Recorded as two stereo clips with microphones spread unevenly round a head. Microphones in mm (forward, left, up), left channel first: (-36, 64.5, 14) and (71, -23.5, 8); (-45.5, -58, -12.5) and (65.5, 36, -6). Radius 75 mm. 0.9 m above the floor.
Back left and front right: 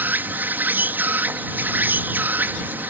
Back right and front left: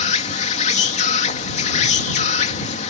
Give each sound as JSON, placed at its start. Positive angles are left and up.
{"t": 0.0, "sound": "an insect", "azimuth_deg": -115}